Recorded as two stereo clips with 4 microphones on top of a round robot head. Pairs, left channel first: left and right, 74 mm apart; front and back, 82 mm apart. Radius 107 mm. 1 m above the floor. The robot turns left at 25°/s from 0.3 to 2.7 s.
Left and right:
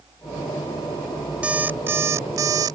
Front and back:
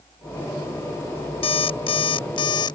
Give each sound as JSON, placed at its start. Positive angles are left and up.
{"t": 1.4, "sound": "an alarm clock", "azimuth_deg": -10}